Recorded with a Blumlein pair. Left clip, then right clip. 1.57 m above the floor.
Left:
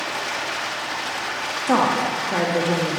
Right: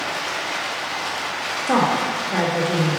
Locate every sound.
0.0 s running water: straight ahead, 1.5 m
1.7 s a woman speaking: 10° left, 1.4 m